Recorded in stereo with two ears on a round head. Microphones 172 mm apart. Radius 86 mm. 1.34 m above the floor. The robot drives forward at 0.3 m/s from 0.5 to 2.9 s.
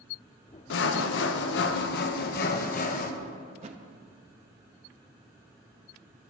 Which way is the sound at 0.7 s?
65° left (ahead or behind).